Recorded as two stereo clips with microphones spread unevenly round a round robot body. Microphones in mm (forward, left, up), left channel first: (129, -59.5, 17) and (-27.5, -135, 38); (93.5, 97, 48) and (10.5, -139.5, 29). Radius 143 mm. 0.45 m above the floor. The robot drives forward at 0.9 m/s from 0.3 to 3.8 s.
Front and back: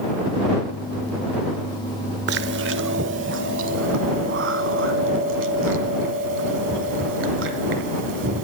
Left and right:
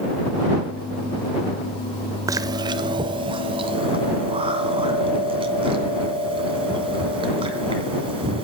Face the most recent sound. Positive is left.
turn(degrees=180)